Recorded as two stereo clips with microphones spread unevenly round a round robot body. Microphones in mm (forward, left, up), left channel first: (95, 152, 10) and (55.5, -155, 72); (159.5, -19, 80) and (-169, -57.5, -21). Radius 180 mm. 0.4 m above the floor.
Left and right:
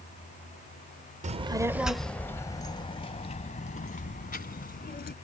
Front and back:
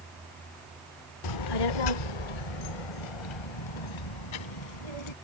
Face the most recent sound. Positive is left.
turn(degrees=25)